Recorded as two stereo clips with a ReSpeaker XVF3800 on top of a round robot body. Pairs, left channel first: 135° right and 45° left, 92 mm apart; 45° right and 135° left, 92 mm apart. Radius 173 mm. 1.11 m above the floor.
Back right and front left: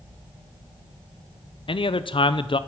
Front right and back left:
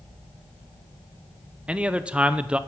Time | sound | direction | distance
1.7 | a man speaking | 150° right | 0.8 m